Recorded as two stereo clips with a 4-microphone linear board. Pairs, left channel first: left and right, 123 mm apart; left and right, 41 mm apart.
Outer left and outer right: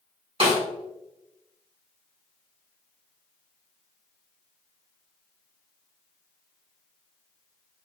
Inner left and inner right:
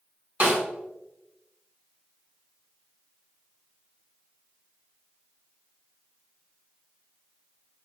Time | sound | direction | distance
0.4 | a snare drum | 45° right (ahead or behind) | 1.2 m